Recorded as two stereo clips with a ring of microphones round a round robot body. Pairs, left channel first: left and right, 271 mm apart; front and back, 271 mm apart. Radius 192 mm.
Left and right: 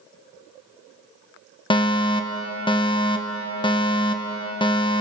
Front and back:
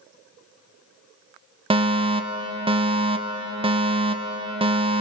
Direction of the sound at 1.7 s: 140° left.